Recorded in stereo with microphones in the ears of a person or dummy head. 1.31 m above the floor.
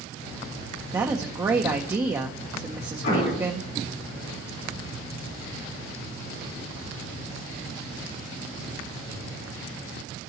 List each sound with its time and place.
0.9 s a woman speaking: 20° right (ahead or behind), 0.7 m
3.0 s an explosion: 55° left (ahead or behind), 4.5 m